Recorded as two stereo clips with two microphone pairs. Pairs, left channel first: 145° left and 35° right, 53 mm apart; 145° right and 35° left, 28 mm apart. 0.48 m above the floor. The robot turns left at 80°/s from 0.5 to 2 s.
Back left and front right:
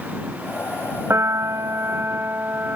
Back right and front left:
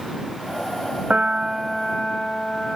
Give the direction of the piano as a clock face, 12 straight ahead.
12 o'clock.